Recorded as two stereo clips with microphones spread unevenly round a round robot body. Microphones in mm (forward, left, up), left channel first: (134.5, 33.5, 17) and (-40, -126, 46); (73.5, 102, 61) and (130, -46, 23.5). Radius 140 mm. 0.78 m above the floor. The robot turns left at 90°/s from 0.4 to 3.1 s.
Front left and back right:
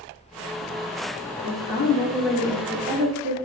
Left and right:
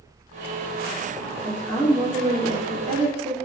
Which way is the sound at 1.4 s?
40° left.